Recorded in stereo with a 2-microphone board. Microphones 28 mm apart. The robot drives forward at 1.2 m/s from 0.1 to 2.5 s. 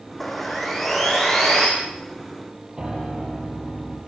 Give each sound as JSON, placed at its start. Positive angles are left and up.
{"t": 0.2, "sound": "sawing", "side_deg": 0, "distance_m": 5.0}
{"t": 2.8, "sound": "a piano", "side_deg": -25, "distance_m": 6.5}